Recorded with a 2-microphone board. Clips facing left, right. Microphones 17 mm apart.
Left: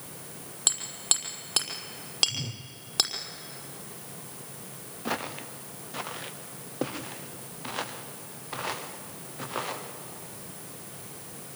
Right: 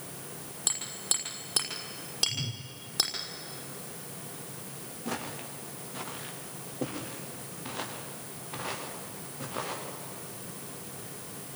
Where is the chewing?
No chewing in this recording.